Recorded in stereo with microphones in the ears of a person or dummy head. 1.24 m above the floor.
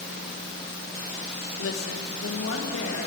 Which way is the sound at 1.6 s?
65° left (ahead or behind).